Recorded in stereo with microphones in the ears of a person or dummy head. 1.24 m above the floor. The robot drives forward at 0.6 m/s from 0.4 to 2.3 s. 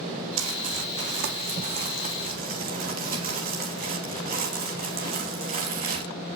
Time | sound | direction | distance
0.4 | crumpling | 70° right (ahead or behind) | 2.0 m